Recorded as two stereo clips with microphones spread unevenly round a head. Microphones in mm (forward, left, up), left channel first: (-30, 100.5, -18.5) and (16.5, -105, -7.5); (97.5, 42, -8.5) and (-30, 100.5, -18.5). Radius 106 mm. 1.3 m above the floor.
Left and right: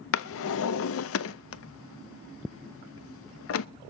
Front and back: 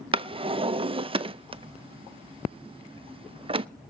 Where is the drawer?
105° left, 0.6 m.